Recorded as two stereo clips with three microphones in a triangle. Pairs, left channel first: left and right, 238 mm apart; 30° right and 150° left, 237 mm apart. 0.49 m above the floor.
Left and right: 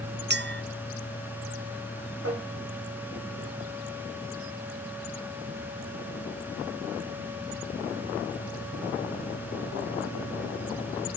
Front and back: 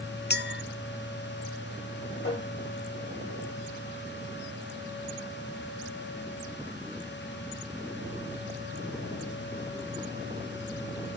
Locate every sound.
0.3 s a clink: 60° right, 0.6 m
2.2 s tapping: 80° right, 8 m